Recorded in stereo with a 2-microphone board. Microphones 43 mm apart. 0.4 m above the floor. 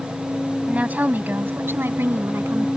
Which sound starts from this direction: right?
A woman speaking, at 0.7 s.